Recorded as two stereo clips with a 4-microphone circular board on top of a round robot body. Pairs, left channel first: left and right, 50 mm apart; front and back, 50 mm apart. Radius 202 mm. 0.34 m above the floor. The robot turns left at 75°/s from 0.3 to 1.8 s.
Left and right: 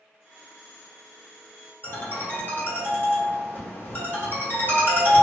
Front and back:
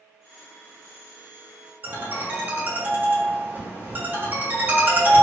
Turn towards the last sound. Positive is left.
turn(degrees=130)